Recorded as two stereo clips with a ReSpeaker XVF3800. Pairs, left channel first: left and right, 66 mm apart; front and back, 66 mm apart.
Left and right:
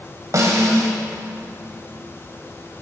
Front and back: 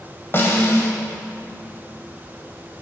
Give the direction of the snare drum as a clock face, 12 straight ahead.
2 o'clock.